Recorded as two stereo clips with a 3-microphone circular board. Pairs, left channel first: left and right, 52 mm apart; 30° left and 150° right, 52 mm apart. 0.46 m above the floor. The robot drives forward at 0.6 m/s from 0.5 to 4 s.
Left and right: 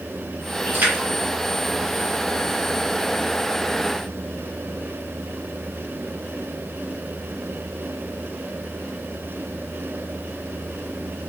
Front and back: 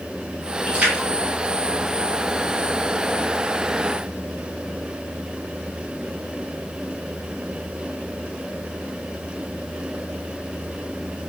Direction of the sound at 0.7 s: 90° right.